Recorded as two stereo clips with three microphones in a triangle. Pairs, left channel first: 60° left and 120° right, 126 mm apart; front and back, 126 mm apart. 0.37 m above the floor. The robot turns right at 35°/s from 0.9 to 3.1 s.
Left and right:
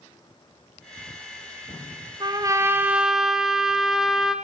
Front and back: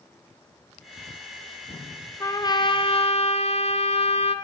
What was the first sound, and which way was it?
A trumpet, 65° right.